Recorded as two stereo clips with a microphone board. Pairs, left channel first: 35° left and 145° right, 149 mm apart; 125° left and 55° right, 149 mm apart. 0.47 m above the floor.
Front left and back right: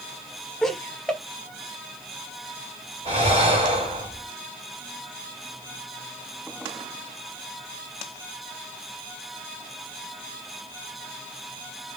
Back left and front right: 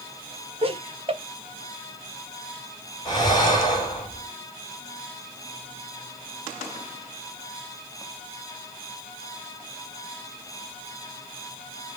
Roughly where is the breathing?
Behind.